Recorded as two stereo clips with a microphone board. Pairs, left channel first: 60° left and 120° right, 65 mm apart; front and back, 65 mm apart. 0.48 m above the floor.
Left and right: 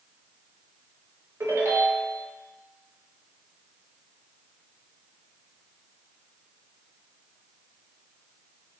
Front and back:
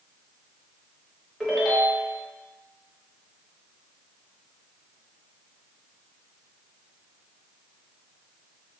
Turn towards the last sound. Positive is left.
turn(degrees=-95)